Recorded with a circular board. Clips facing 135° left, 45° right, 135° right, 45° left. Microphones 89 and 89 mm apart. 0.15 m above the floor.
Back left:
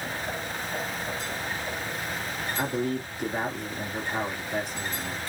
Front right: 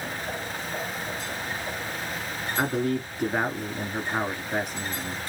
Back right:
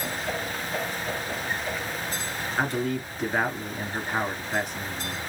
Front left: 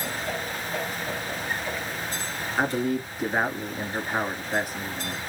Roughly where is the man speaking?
Ahead right.